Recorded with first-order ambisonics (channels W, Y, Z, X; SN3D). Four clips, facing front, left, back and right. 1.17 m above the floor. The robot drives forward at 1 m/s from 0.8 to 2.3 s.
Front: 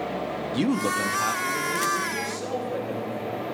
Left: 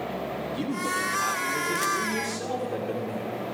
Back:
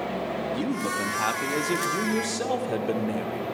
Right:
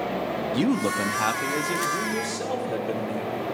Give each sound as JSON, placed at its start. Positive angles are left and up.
{"t": 0.5, "sound": "a man speaking", "azimuth_deg": -55, "distance_m": 0.7}